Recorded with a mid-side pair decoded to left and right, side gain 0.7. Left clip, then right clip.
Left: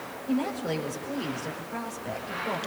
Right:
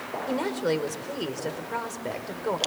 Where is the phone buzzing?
I don't hear a phone buzzing.